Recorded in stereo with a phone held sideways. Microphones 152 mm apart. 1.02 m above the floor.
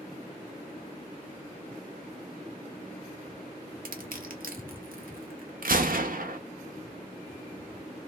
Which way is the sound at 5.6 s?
65° right (ahead or behind).